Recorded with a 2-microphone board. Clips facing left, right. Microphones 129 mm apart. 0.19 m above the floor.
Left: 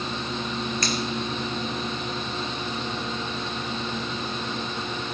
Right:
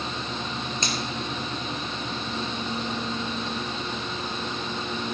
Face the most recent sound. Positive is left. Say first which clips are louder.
# left 1 dB
turn(degrees=-20)  # may be behind; listen again after turning